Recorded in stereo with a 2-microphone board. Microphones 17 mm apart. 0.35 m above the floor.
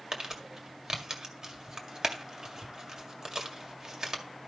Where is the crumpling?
35° right (ahead or behind), 1.8 m.